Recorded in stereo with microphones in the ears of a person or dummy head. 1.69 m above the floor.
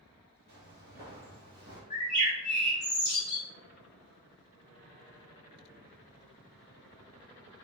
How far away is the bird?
About 1.6 m.